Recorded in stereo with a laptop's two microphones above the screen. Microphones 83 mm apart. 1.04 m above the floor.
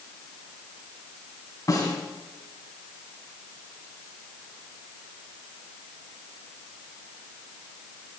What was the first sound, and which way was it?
A snare drum, 40° left (ahead or behind).